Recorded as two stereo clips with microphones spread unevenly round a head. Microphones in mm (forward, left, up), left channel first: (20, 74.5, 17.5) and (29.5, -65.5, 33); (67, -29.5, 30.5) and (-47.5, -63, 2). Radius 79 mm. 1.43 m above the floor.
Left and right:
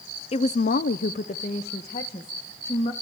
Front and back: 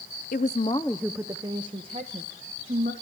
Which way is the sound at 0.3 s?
50° left.